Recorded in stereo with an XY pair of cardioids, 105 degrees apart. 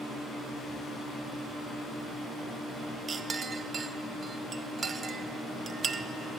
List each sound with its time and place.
3.1 s a clink: 40° right, 0.7 m